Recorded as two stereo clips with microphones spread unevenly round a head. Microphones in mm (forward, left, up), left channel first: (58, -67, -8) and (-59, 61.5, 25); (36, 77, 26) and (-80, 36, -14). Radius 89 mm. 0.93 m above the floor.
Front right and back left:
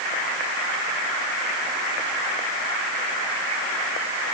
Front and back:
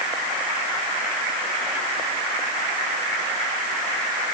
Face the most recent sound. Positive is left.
No sound to turn to.